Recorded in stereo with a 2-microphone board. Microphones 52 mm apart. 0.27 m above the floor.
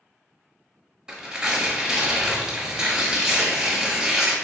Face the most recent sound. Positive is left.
turn(degrees=-15)  # may be behind; listen again after turning